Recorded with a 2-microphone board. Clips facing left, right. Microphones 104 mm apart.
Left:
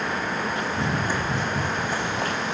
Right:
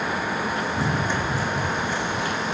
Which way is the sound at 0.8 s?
5° right (ahead or behind).